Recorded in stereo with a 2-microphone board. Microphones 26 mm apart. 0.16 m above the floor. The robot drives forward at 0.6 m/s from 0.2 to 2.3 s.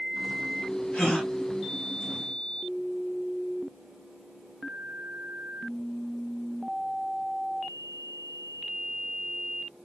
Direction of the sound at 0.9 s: 60° left (ahead or behind).